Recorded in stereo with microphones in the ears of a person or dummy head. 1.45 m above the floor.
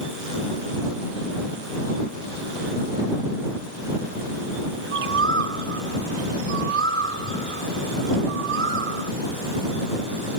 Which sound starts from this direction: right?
A bird, at 4.8 s.